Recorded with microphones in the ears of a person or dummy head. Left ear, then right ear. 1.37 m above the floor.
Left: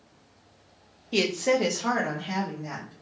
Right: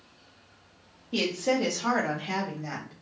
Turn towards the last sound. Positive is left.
turn(degrees=-40)  # may be behind; listen again after turning